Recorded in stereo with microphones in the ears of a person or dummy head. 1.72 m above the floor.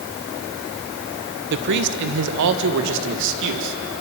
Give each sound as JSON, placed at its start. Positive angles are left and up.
{"t": 1.5, "sound": "a man speaking", "side_deg": -60, "distance_m": 1.5}